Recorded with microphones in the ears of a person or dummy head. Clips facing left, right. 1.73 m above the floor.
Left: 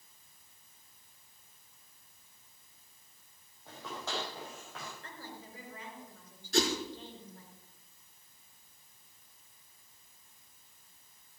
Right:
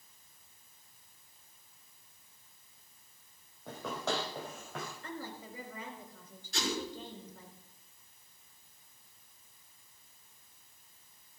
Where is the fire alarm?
I don't hear a fire alarm.